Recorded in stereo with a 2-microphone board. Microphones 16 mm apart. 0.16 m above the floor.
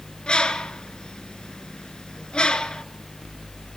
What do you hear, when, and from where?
0.3 s a bird: 55° left (ahead or behind), 1.2 m